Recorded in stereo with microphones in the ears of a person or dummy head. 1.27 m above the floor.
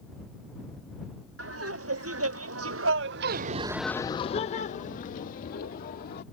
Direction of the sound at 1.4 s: 70° right (ahead or behind).